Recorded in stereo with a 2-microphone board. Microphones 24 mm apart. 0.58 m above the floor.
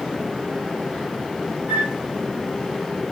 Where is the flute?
75° right (ahead or behind), 10 m.